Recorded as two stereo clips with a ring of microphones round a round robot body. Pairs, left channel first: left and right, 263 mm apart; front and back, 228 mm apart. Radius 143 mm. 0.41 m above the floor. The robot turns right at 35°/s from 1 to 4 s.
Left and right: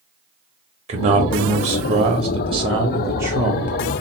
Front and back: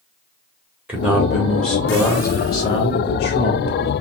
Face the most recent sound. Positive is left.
turn(degrees=5)